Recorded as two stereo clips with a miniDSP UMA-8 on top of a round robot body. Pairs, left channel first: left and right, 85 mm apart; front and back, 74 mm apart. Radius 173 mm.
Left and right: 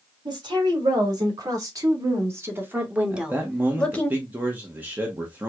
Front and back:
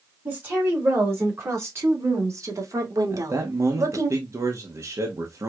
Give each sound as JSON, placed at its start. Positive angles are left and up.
{"t": 0.2, "sound": "a woman speaking", "azimuth_deg": -120, "distance_m": 2.5}
{"t": 3.1, "sound": "a man speaking", "azimuth_deg": -150, "distance_m": 0.9}